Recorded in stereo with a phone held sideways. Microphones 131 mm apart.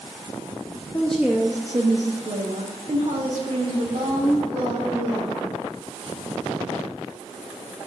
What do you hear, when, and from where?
0.9 s a woman speaking: 10° left (ahead or behind), 0.8 m; by 5.5 s 75° right (ahead or behind), 3 m